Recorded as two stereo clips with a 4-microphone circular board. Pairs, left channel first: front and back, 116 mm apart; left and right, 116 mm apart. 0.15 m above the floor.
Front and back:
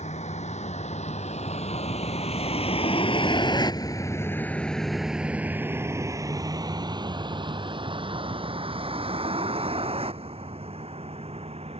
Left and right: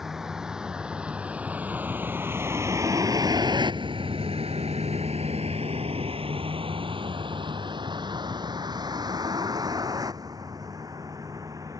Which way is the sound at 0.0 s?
5° right.